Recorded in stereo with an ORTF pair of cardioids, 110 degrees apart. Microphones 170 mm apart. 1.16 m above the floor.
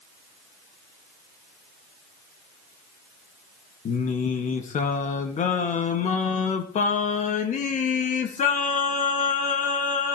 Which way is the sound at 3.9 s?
50° left.